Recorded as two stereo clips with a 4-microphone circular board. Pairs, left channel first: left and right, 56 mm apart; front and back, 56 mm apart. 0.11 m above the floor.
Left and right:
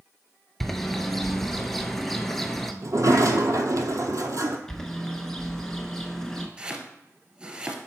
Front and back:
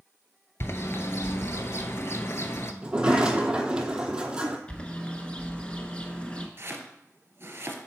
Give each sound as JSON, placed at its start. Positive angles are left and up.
{"t": 0.6, "sound": "a bird", "azimuth_deg": 5, "distance_m": 0.6}
{"t": 2.8, "sound": "a sliding door", "azimuth_deg": -110, "distance_m": 0.7}
{"t": 4.7, "sound": "a bird", "azimuth_deg": 25, "distance_m": 0.8}
{"t": 6.6, "sound": "chopping", "azimuth_deg": -155, "distance_m": 0.9}